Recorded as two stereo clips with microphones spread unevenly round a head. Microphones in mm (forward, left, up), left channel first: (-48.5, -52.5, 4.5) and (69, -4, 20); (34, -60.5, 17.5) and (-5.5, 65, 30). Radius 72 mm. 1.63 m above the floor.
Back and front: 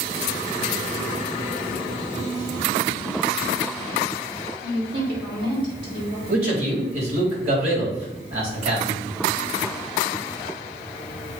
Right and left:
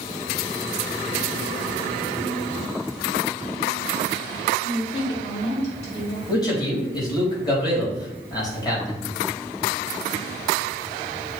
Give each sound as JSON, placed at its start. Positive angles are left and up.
{"t": 4.6, "sound": "a woman speaking", "azimuth_deg": -20, "distance_m": 3.0}
{"t": 6.3, "sound": "a man speaking", "azimuth_deg": -10, "distance_m": 3.5}